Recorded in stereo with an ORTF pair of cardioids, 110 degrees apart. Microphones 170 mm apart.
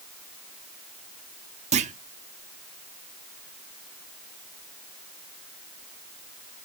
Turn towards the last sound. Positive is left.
turn(degrees=-40)